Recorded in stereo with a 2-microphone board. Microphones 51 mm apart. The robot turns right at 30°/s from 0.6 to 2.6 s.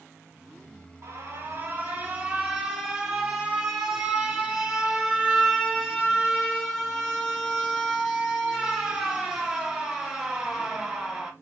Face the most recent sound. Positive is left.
turn(degrees=-10)